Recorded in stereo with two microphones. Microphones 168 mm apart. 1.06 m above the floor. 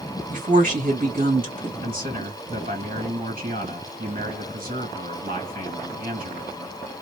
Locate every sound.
0.3 s a woman speaking: 55° right (ahead or behind), 1.6 m
1.8 s a man speaking: 55° right (ahead or behind), 1.7 m